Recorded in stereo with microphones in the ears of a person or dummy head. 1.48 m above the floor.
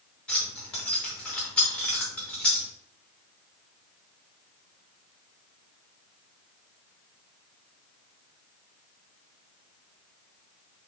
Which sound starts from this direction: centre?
Keys jangling, at 0.3 s.